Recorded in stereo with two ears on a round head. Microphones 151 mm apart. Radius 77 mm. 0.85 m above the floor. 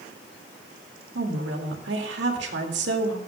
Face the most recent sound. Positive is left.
turn(degrees=-80)